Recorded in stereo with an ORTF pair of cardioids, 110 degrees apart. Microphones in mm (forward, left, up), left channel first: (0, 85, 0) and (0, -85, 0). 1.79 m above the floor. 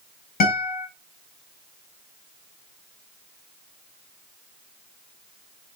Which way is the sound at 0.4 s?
60° left.